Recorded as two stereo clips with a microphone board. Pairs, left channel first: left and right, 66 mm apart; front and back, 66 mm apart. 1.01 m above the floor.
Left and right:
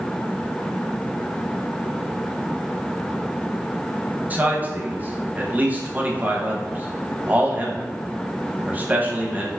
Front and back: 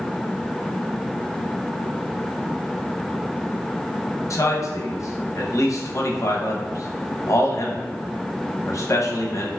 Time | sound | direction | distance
4.3 | a man speaking | 30° right | 0.9 m